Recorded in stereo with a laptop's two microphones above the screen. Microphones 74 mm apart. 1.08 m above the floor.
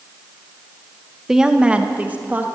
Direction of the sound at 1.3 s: 5° right (ahead or behind).